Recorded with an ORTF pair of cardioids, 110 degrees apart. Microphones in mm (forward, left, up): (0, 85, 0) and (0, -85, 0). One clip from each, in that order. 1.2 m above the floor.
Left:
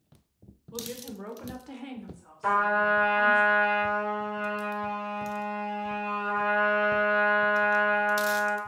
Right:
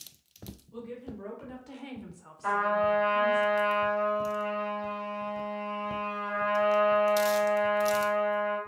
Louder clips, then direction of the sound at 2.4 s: Left 2 dB; 55° left.